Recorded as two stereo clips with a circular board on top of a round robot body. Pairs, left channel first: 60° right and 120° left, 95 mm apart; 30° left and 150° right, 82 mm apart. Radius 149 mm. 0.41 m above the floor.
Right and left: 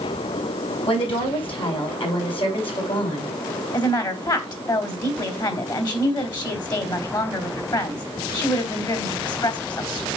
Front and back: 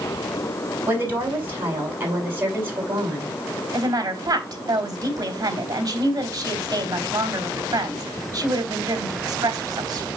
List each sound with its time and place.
0.9 s a woman speaking: 90° right, 5.5 m
3.7 s a woman speaking: 105° right, 3 m